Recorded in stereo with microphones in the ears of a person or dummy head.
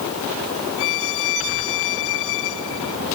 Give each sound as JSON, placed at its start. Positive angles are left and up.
{"t": 0.8, "sound": "a violin", "side_deg": 70}